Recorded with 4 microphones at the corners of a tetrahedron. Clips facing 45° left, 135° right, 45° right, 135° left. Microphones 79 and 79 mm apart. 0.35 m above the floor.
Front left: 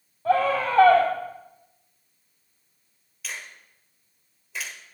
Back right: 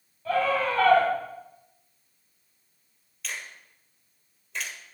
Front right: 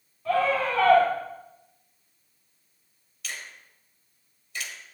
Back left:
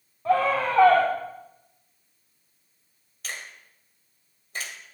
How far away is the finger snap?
About 1.5 m.